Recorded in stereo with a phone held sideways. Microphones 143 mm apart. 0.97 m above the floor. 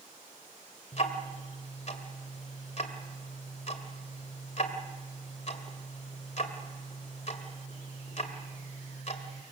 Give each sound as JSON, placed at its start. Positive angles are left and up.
{"t": 0.9, "sound": "ticking", "side_deg": 50, "distance_m": 2.0}